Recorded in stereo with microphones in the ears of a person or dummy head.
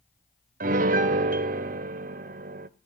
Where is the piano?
40° right (ahead or behind), 0.7 m.